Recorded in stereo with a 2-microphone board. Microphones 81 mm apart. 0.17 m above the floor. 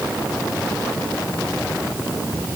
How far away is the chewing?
I don't hear chewing.